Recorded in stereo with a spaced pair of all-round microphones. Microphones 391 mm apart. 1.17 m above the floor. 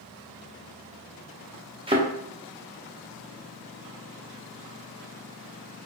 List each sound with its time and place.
1.9 s a thud: 15° right (ahead or behind), 0.5 m